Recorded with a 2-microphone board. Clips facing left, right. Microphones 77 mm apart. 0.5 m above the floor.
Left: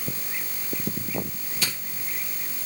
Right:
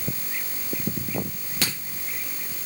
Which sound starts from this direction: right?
A crack, at 1.6 s.